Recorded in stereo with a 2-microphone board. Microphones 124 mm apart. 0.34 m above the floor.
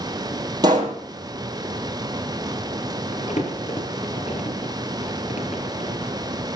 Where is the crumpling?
70° left (ahead or behind), 5 m.